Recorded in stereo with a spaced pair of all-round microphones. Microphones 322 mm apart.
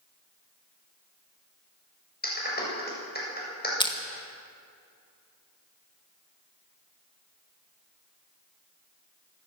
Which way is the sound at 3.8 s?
15° left (ahead or behind).